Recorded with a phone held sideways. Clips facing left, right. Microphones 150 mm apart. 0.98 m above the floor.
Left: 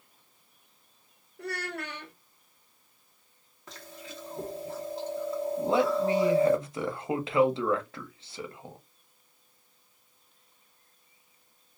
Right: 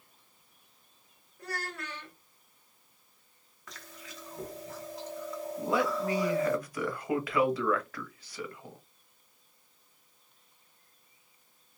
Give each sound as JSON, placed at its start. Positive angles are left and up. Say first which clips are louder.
{"t": 1.4, "sound": "a child speaking", "louder": "left 4 dB", "side_deg": 65, "distance_m": 0.8}
{"t": 3.7, "sound": "chewing", "louder": "left 5 dB", "side_deg": 30, "distance_m": 0.9}
{"t": 5.6, "sound": "a man speaking", "louder": "left 4 dB", "side_deg": 25, "distance_m": 0.8}